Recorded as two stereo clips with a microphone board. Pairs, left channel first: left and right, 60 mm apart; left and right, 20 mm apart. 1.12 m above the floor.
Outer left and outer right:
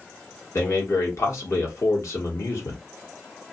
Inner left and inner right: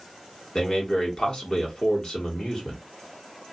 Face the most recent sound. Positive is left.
turn(degrees=50)  # may be behind; listen again after turning